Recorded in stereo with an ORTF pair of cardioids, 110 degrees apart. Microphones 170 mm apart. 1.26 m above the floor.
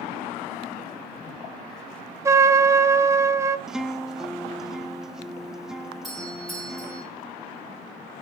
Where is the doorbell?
Straight ahead, 5 m.